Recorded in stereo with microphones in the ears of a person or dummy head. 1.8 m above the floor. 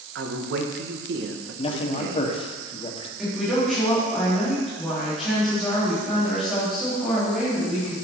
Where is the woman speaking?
Centre (ahead or behind), 4 m.